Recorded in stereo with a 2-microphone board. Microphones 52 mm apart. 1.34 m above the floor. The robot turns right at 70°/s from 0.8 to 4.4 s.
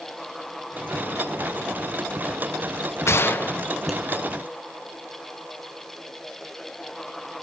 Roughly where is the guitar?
I don't hear a guitar.